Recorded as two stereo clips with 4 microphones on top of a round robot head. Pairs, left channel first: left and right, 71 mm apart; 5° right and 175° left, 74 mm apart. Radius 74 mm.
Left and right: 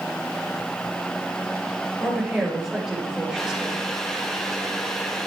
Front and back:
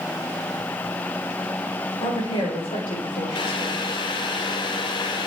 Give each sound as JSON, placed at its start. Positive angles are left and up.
{"t": 2.0, "sound": "a woman speaking", "azimuth_deg": -5, "distance_m": 5.5}
{"t": 3.4, "sound": "boiling", "azimuth_deg": 10, "distance_m": 1.3}